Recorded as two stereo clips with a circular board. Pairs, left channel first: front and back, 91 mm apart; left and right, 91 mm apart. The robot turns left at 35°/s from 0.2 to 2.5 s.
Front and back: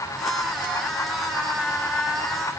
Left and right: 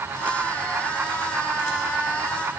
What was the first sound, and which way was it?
Only background noise.